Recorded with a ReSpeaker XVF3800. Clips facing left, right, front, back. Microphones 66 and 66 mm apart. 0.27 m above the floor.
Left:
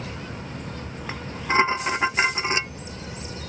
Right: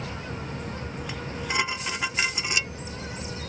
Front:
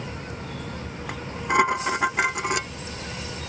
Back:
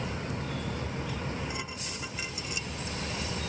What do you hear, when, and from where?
1.1 s dishes clattering: 30° left